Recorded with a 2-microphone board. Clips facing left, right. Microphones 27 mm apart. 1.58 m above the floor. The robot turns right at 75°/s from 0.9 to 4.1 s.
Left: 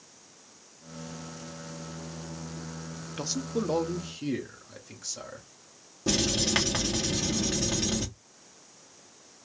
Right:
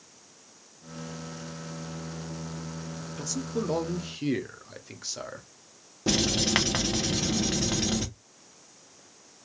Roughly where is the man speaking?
Left.